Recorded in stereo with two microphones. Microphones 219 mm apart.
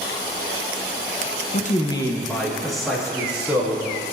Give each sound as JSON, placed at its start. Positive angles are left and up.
{"t": 1.5, "sound": "a man speaking", "side_deg": 45, "distance_m": 0.6}